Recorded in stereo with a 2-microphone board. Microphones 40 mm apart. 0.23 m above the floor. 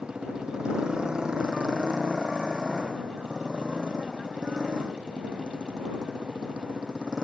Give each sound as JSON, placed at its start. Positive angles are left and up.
{"t": 0.0, "sound": "a motorcycle", "side_deg": -20}